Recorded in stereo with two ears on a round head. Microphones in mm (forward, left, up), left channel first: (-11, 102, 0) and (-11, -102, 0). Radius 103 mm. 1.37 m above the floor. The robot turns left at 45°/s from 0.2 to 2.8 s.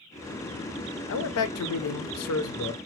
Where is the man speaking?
125° left, 0.5 m; by 2.8 s 50° left, 0.5 m.